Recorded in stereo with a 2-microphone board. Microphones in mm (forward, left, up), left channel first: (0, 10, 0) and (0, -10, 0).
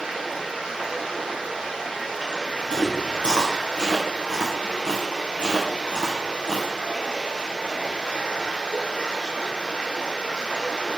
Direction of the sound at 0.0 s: 75° right (ahead or behind).